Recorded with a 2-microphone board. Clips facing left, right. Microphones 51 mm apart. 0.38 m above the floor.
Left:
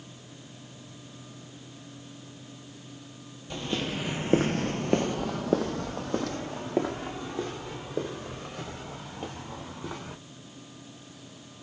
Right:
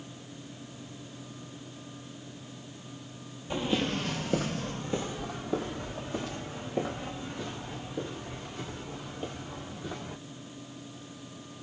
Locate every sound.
3.5 s footsteps: 15° right (ahead or behind), 0.7 m; by 10.2 s 60° left (ahead or behind), 4 m